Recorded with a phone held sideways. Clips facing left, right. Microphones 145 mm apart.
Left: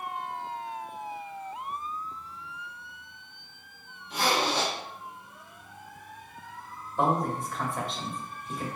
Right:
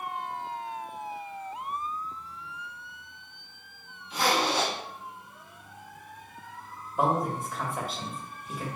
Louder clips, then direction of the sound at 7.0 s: Even; 5° right (ahead or behind).